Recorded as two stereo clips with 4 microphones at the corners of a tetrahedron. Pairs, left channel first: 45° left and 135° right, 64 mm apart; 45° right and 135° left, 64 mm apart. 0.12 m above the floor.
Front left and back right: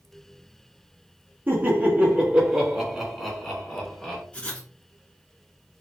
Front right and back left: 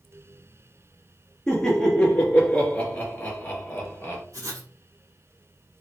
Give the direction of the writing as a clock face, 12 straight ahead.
8 o'clock.